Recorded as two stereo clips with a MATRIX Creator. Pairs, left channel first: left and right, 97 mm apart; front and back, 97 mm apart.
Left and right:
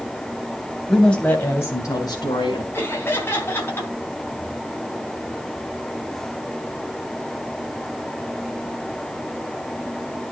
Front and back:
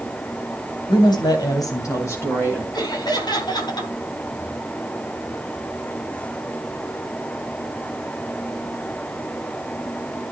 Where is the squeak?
No squeak in this recording.